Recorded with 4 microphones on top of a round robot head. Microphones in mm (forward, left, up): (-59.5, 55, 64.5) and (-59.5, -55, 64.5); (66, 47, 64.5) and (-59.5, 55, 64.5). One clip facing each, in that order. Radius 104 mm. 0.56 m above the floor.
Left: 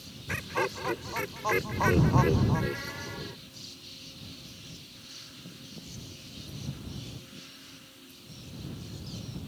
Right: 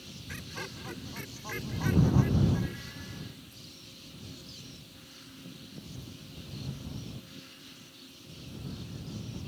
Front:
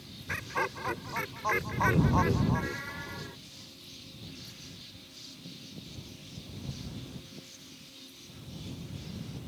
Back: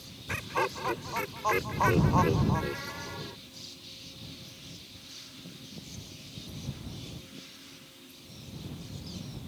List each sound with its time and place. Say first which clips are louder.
0.3 s laughter: left 12 dB, back 3 dB; 105° left